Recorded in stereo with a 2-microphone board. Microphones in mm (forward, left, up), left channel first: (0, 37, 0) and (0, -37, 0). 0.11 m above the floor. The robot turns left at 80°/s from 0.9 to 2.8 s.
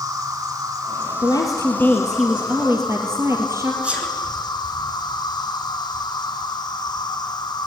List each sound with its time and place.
0.0 s an insect: 130° right, 4 m; by 7.7 s 75° left, 4 m
1.2 s a woman speaking: 80° left, 3 m; by 3.7 s 45° right, 3 m
3.8 s a sneeze: 15° right (ahead or behind), 5 m